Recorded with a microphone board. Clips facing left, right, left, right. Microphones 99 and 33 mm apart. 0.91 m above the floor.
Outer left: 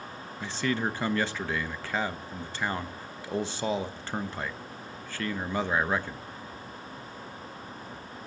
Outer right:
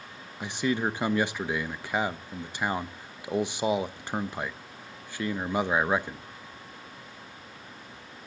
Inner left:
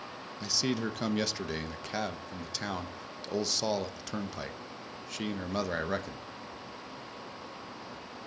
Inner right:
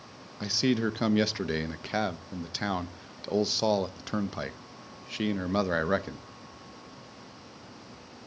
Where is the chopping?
I don't hear chopping.